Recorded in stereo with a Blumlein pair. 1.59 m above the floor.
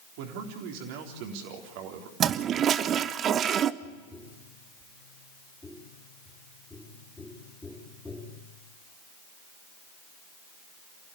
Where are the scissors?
No scissors in this recording.